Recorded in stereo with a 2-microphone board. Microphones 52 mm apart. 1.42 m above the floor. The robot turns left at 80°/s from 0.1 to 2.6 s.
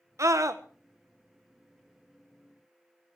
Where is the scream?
75° right, 1.4 m; by 0.6 s 110° right, 1.4 m.